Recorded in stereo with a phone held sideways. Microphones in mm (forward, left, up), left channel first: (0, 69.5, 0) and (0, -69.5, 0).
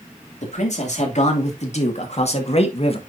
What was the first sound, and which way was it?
A man speaking, 55° left (ahead or behind).